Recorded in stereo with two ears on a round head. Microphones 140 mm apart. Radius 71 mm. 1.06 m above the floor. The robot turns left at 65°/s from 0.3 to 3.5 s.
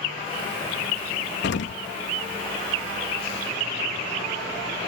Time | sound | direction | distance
1.4 | an explosion | 75° left (ahead or behind) | 0.7 m